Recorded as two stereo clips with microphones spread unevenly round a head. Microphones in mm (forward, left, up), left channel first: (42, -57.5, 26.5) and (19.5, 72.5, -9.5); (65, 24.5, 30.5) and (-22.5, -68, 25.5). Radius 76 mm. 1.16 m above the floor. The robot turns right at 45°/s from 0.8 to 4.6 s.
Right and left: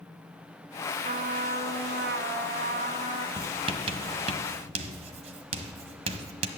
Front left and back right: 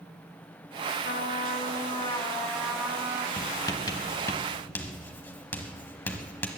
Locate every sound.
1.1 s a trumpet: 65° left, 1.4 m; by 3.3 s 165° left, 1.4 m
3.4 s writing: 50° left, 1.1 m; by 6.5 s 105° left, 1.1 m